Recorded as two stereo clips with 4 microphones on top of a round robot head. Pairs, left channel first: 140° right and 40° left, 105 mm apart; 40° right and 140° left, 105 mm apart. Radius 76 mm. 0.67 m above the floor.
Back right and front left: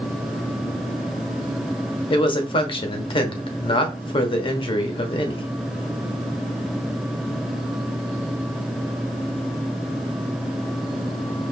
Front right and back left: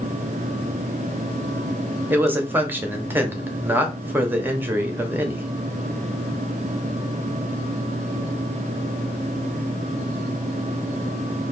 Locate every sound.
2.1 s a man speaking: 150° right, 1.1 m